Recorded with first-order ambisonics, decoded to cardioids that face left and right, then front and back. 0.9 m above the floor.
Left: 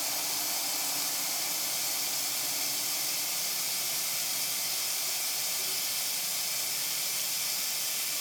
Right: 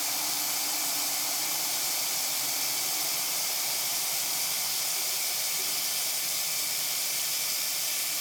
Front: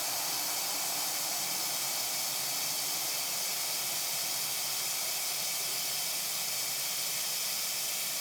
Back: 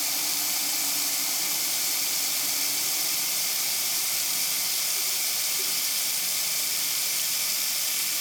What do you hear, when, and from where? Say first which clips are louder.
0.0 s running water: right 2 dB, back 6 dB; 175° right, 1.2 m